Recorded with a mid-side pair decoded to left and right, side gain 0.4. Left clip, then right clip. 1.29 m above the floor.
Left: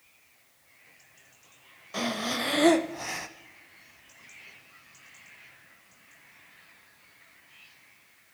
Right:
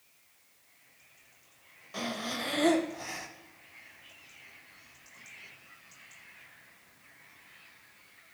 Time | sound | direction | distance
1.9 | breathing | 40° left | 0.6 m